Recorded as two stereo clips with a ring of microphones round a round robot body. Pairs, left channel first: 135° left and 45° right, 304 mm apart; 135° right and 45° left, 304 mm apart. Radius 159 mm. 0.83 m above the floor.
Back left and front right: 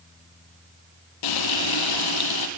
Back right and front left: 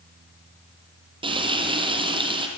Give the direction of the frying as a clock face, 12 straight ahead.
8 o'clock.